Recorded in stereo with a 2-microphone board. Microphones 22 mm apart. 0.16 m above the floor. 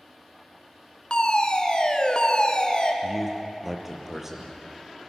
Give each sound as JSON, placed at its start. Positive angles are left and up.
{"t": 1.1, "sound": "a fire alarm", "side_deg": 40, "distance_m": 2.5}
{"t": 3.0, "sound": "a man speaking", "side_deg": -15, "distance_m": 4.0}